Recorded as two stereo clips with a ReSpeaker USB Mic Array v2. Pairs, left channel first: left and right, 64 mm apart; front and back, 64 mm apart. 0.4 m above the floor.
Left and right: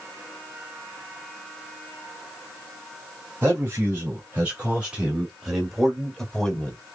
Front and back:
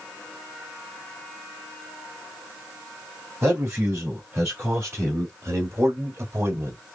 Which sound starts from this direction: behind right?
A man speaking, at 3.4 s.